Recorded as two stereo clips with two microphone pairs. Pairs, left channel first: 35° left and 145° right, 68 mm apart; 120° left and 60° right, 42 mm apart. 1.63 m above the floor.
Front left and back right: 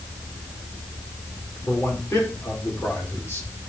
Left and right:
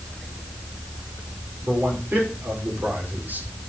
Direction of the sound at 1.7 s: 10° right.